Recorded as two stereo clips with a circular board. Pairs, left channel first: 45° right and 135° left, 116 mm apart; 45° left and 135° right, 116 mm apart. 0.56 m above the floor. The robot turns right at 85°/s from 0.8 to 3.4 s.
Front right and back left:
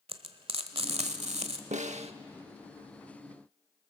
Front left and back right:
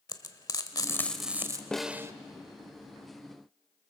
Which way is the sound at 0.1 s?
100° left.